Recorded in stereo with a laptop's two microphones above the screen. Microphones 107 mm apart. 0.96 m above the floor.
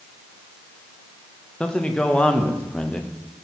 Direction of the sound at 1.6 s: 10° left (ahead or behind).